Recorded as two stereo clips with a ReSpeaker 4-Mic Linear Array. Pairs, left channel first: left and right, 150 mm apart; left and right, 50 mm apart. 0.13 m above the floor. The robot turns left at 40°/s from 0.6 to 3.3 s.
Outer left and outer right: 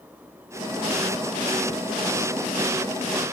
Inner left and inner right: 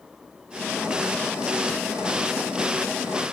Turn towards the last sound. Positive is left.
No sound to turn to.